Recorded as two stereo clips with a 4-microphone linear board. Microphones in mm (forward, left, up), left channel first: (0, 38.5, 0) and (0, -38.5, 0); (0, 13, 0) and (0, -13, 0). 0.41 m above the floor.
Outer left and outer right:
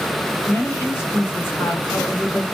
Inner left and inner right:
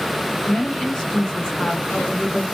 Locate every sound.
0.5 s a woman speaking: 25° left (ahead or behind), 1.3 m